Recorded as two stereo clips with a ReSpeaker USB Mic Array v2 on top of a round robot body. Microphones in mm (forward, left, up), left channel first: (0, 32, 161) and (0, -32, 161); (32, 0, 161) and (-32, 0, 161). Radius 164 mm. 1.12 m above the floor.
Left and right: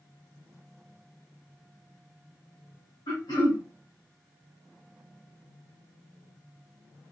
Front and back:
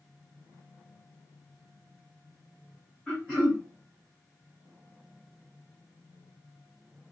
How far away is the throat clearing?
About 0.7 m.